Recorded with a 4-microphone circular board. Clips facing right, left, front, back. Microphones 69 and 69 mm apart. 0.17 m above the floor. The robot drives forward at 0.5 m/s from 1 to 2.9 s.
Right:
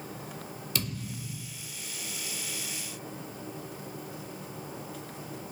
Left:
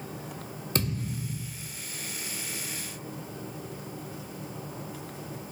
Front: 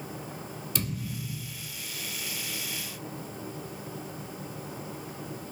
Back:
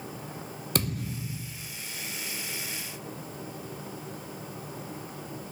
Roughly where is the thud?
Behind left.